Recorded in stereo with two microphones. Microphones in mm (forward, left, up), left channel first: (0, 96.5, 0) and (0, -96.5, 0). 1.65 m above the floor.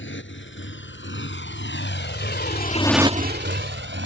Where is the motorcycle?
80° left; by 4.1 s 80° right.